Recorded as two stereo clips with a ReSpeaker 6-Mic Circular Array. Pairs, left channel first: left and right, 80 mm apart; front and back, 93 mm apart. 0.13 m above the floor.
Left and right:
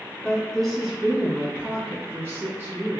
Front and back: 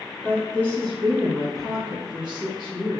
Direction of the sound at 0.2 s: 25° left.